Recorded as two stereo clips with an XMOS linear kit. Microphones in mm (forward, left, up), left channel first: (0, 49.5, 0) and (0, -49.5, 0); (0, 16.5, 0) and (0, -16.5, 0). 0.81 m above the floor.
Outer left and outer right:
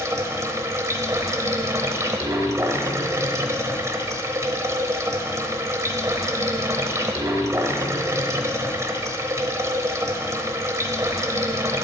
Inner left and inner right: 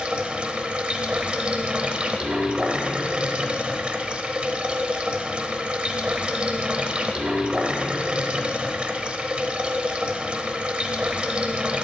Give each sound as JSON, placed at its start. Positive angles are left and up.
{"t": 0.0, "sound": "running water", "side_deg": -30, "distance_m": 1.0}